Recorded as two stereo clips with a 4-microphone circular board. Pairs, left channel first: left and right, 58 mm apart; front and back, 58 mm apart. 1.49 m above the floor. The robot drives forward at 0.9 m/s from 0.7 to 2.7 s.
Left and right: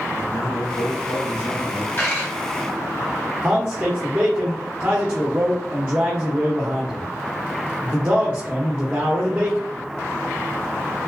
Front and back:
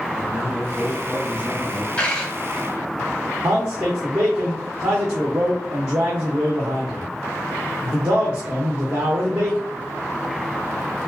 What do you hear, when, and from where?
0.1 s a man speaking: 110° left, 1.2 m; by 1.9 s 140° left, 1.8 m
2.0 s a dropped coin: 60° left, 1.5 m; by 2.3 s 80° left, 1.4 m
3.4 s a man speaking: 155° right, 0.8 m